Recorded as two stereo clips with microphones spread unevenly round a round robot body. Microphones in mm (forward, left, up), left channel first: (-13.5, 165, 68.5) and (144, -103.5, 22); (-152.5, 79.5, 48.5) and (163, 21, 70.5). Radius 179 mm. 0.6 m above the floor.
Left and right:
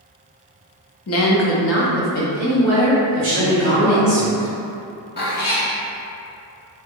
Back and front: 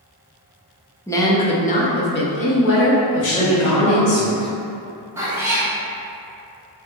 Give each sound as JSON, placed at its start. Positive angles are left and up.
{"t": 1.1, "sound": "a woman speaking", "azimuth_deg": 95, "distance_m": 0.8}
{"t": 3.2, "sound": "a man speaking", "azimuth_deg": -160, "distance_m": 0.6}
{"t": 5.2, "sound": "a cat meowing", "azimuth_deg": 70, "distance_m": 1.0}